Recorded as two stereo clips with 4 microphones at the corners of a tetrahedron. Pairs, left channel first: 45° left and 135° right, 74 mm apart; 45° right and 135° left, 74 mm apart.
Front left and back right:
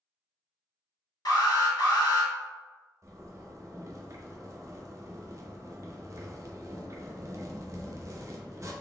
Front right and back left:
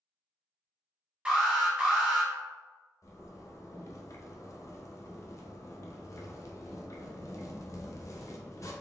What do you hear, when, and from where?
1.2 s an alarm: 60° left, 2.0 m
3.0 s a zipper: 90° right, 0.7 m